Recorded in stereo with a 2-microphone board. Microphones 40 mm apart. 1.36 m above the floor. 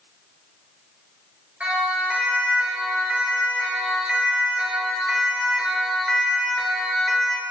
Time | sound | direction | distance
1.6 | a siren | 30° right (ahead or behind) | 9 m